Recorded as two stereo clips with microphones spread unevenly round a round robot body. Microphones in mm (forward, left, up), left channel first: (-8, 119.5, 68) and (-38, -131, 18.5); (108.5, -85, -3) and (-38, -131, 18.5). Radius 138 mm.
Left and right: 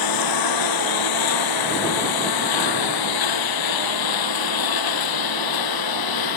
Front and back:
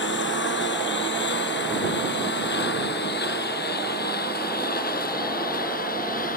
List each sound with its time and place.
0.0 s a lawn mower: 65° left; by 6.4 s 80° left